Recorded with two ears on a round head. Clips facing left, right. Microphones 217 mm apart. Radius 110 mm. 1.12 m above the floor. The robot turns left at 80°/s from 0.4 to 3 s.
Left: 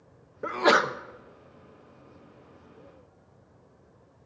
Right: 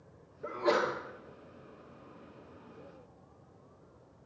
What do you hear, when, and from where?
0.4 s a sneeze: 105° left, 0.9 m; by 1.0 s 65° left, 0.9 m